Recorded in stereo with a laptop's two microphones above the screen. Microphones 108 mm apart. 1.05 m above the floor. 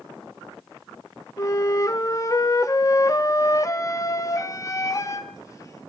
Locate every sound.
1.4 s a flute: 30° left (ahead or behind), 0.5 m